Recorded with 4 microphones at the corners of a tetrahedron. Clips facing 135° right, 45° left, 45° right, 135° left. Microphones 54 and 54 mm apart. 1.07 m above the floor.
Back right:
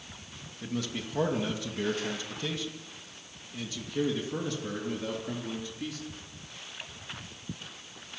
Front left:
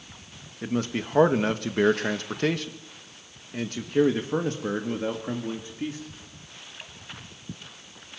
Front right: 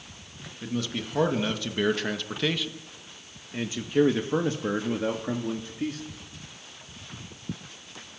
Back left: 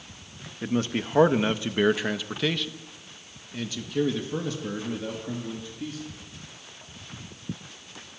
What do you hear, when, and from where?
0.6 s a man speaking: 90° left, 1.7 m; by 6.0 s 15° right, 2.5 m